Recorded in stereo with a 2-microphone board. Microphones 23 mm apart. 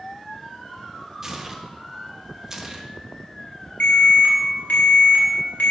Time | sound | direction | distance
1.2 | tearing paper | 20° right (ahead or behind) | 0.9 m
3.8 | an alarm | 65° left (ahead or behind) | 3 m